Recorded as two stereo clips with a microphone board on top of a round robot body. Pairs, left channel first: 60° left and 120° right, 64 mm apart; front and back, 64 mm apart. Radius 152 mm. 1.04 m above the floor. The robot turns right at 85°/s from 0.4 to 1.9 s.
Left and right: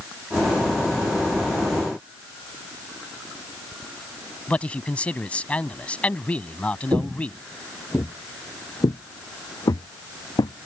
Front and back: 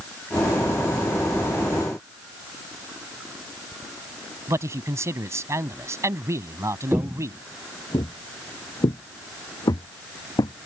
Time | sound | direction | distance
4.5 | a man speaking | 130° left | ?
6.9 | footsteps | 100° right | ?